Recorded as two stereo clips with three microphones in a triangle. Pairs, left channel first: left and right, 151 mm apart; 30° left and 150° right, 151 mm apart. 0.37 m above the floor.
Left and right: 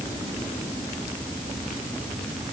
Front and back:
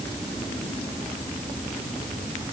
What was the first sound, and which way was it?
Only background noise.